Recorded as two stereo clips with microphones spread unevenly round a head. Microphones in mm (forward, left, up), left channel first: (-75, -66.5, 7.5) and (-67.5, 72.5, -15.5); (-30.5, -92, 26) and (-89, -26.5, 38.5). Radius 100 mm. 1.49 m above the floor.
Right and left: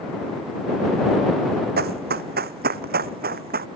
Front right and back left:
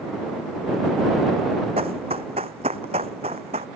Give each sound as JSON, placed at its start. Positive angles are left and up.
{"t": 1.8, "sound": "running footsteps", "azimuth_deg": 85}